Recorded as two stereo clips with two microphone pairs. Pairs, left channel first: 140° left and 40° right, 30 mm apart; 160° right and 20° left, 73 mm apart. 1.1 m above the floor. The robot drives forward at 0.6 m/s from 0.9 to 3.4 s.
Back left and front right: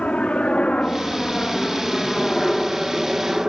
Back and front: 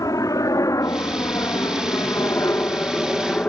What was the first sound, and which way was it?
A helicopter, 175° left.